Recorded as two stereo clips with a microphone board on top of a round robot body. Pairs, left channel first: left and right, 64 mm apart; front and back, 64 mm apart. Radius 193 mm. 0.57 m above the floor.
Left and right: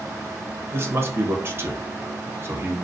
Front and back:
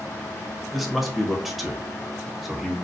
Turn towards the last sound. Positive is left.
turn(degrees=-90)